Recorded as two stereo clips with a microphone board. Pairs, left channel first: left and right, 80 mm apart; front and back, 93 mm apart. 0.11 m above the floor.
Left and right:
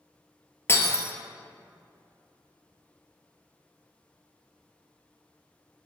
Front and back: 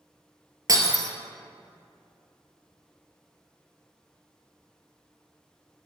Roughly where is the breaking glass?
Behind left.